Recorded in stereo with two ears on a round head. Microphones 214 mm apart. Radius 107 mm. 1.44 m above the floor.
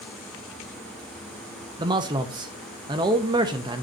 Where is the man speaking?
20° right (ahead or behind), 0.7 m.